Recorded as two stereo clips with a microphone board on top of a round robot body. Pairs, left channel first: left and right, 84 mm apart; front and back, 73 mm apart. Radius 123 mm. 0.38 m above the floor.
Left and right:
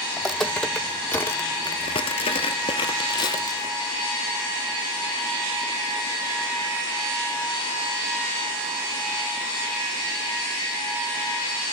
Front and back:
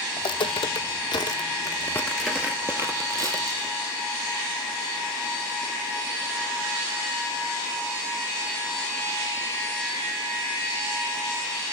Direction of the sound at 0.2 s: Straight ahead.